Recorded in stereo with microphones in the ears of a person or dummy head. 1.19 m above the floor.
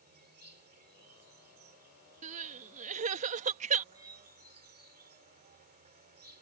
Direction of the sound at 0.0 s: 40° right (ahead or behind).